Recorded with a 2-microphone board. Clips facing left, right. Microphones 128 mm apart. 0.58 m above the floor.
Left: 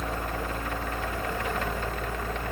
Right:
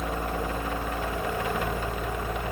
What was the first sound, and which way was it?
Only background noise.